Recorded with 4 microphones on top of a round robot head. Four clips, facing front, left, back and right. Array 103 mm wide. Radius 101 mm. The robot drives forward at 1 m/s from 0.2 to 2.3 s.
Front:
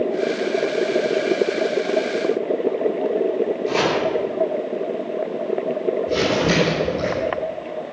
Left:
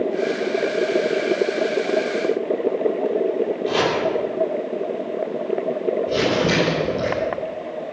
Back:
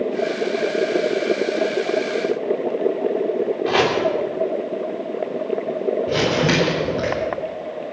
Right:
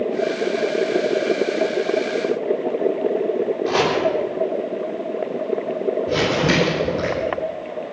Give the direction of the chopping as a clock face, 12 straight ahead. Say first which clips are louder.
Right 1 dB, back 3 dB; 5 o'clock.